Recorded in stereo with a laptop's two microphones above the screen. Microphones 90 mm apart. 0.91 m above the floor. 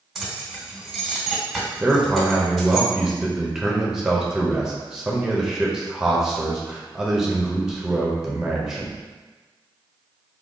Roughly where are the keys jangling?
Centre.